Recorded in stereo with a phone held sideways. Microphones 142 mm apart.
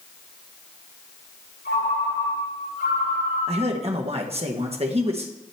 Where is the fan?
No fan in this recording.